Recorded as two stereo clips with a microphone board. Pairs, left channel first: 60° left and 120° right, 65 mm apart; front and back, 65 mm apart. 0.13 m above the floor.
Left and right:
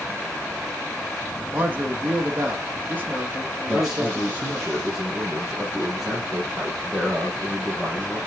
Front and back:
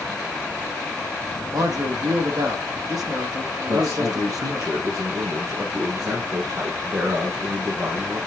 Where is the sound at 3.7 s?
160° left, 4 m.